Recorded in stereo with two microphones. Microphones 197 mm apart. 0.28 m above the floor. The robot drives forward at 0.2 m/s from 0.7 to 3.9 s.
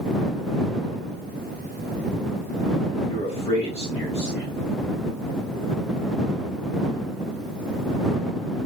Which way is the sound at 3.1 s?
30° left (ahead or behind).